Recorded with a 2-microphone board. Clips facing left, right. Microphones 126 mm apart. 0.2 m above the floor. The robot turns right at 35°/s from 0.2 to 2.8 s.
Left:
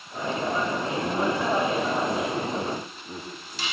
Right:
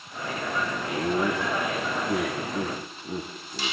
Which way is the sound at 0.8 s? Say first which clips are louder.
Even; 30° left (ahead or behind).